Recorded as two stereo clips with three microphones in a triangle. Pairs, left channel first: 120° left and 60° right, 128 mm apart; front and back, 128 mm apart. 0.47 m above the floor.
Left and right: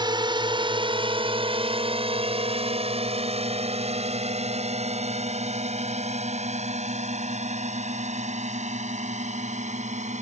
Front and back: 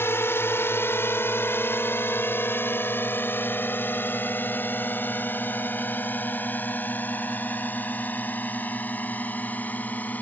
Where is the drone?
60° right; by 10.2 s 75° right.